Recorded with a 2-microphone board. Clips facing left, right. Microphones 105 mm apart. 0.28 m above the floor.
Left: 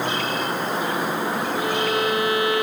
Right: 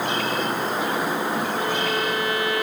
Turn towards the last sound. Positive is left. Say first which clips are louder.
# left 2 dB
turn(degrees=20)  # may be behind; listen again after turning